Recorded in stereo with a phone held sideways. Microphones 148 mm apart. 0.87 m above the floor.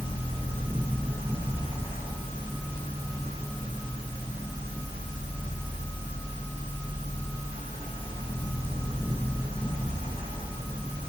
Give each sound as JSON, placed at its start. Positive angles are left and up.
{"t": 0.0, "sound": "a fan", "side_deg": -35, "distance_m": 1.3}